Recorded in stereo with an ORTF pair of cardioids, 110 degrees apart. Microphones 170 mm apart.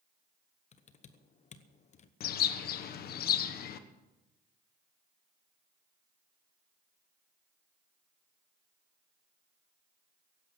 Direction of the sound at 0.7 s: 45° left.